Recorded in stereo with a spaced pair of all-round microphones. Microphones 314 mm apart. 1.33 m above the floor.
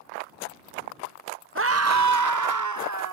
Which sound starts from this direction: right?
A scream, at 1.6 s.